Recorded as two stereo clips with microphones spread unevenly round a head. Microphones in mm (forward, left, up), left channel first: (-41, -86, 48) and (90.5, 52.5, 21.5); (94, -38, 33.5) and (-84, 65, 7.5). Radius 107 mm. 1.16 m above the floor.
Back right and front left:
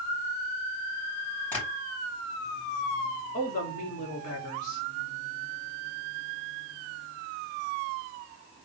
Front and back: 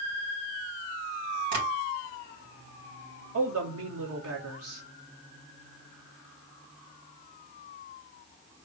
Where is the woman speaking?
170° left, 2 m.